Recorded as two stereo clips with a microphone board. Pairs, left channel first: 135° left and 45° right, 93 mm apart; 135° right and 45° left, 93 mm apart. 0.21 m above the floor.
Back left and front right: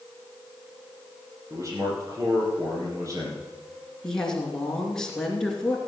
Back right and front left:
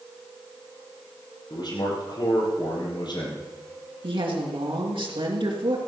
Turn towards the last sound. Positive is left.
turn(degrees=55)